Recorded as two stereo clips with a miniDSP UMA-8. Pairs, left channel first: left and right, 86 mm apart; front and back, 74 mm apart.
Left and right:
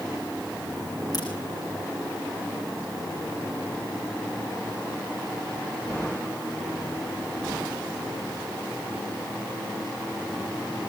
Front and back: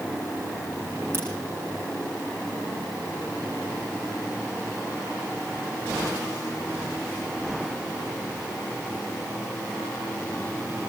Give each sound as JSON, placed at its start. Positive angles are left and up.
{"t": 1.1, "sound": "a crack", "azimuth_deg": 125, "distance_m": 6.5}